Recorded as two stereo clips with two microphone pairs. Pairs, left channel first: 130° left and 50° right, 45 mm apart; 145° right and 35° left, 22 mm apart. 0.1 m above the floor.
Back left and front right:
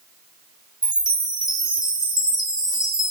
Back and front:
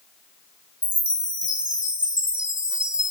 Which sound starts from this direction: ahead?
A chime, at 0.8 s.